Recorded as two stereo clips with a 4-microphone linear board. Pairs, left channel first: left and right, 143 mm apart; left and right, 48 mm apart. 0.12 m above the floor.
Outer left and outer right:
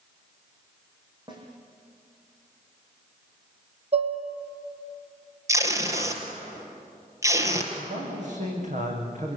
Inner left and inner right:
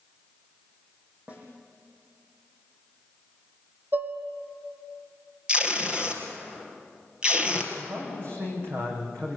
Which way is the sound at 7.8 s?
60° right (ahead or behind).